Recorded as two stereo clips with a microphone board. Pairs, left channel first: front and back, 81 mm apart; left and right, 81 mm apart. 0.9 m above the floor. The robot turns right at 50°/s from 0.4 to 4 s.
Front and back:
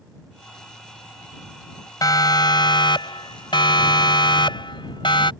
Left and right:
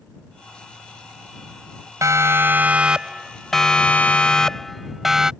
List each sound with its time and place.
2.0 s a siren: 40° right; by 5.3 s 5° right